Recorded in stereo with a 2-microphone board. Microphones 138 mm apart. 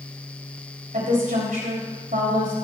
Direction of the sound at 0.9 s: 80° right.